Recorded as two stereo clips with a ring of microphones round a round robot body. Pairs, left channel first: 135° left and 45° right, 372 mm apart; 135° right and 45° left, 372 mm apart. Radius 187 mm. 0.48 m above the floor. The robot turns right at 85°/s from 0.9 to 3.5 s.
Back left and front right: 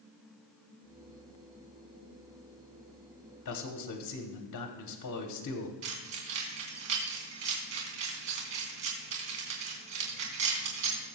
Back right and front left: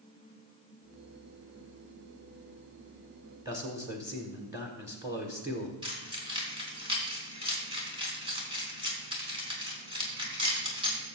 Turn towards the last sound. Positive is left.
turn(degrees=-30)